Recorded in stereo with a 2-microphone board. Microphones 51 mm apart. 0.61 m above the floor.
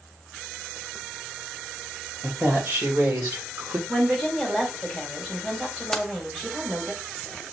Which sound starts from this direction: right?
A woman speaking, at 2.2 s.